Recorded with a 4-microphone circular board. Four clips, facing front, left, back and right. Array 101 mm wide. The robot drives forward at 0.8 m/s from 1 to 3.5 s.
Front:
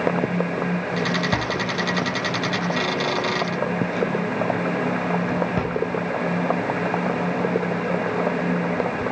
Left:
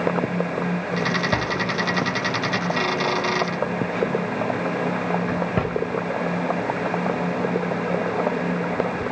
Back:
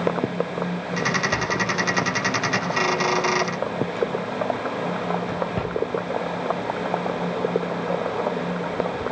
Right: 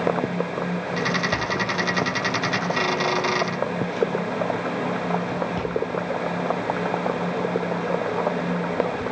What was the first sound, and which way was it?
A drawer, 35° left.